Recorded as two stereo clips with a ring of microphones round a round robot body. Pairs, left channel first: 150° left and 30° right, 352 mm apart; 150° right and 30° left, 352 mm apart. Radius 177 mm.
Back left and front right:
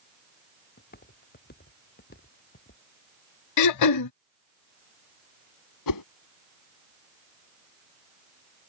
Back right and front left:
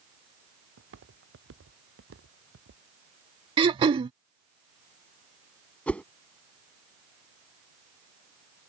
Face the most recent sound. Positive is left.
turn(degrees=125)